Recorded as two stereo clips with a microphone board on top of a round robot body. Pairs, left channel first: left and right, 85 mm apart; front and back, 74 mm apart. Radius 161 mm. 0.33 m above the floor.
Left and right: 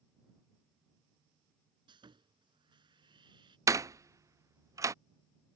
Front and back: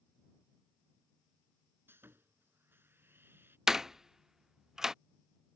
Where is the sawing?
120° right.